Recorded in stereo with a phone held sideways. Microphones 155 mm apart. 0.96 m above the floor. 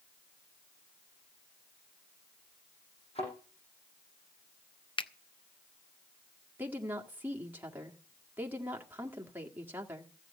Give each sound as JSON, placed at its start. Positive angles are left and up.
{"t": 3.1, "sound": "a thud", "side_deg": 40, "distance_m": 7.0}
{"t": 5.0, "sound": "a finger snap", "side_deg": 30, "distance_m": 0.6}
{"t": 6.6, "sound": "a woman speaking", "side_deg": -10, "distance_m": 1.7}